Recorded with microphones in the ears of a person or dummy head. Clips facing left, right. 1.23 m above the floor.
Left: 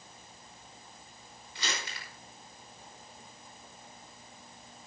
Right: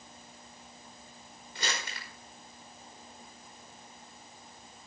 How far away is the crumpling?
About 5 m.